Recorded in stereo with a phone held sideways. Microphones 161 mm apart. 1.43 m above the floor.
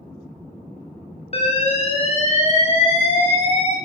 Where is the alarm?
40° left (ahead or behind), 0.8 m.